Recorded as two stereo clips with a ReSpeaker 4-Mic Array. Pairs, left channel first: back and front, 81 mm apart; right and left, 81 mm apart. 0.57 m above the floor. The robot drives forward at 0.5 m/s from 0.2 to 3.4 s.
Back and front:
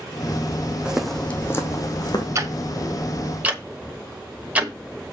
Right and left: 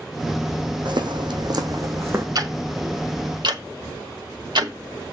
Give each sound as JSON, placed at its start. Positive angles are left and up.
{"t": 0.8, "sound": "footsteps", "azimuth_deg": 80, "distance_m": 1.6}
{"t": 2.4, "sound": "ticking", "azimuth_deg": 50, "distance_m": 1.4}